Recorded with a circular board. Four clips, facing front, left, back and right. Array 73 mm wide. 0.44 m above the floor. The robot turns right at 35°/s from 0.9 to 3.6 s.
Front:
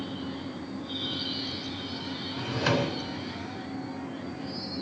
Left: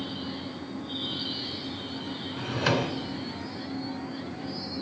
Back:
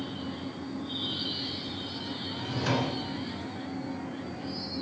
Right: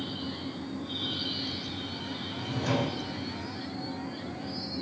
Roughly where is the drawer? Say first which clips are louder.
Left 3 dB, front 3 dB; ahead left.